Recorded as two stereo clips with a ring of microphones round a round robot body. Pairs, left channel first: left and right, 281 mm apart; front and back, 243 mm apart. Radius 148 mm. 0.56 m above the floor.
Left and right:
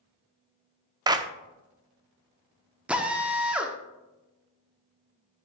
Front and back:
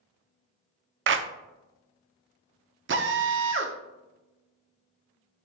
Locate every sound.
1.1 s a clap: 160° right, 0.7 m
2.9 s a drill: 175° right, 1.1 m